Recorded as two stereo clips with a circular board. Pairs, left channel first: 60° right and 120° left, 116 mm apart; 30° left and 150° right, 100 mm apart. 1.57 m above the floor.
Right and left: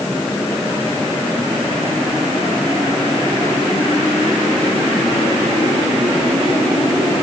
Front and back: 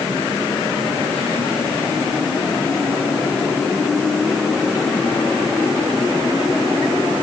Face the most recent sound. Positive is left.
No sound to turn to.